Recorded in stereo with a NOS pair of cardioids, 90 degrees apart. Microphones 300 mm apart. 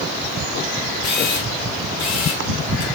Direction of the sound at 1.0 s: 70° left.